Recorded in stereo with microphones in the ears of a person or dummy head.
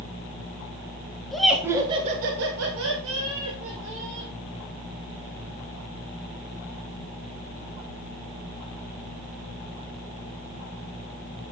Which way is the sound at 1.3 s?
5° left (ahead or behind).